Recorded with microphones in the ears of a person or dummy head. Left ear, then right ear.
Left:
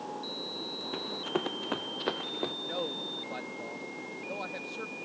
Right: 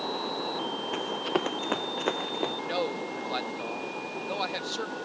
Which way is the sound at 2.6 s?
40° right (ahead or behind).